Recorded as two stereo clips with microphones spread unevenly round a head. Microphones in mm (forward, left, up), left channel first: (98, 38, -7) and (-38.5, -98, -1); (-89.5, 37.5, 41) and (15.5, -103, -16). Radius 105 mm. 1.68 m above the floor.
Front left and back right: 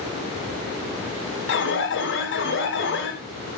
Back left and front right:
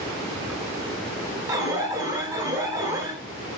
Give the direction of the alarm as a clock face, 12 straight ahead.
11 o'clock.